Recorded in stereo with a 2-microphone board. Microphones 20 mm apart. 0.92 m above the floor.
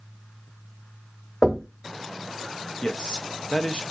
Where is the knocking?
35° left (ahead or behind), 1.1 m.